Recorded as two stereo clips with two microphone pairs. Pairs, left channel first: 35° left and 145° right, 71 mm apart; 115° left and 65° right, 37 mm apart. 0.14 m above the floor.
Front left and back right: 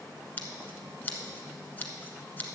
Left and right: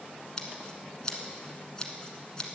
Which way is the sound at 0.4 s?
70° left.